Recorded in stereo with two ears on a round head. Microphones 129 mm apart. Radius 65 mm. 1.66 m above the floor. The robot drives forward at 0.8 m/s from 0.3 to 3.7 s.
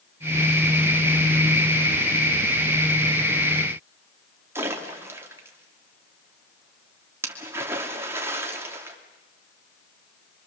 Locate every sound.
4.5 s a splash: 20° right (ahead or behind), 2.5 m